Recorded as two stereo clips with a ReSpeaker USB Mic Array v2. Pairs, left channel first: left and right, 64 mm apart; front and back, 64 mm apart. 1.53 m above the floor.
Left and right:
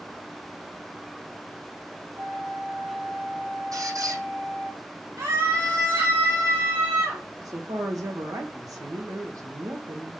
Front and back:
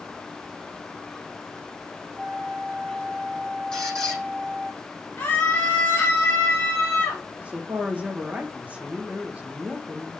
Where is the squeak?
75° right, 6 m.